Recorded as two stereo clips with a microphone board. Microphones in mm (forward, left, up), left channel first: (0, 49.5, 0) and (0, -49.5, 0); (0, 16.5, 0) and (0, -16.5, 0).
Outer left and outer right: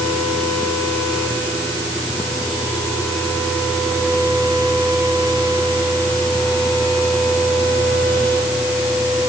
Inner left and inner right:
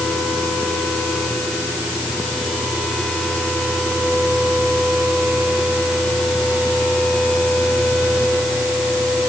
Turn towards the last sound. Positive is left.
No sound to turn to.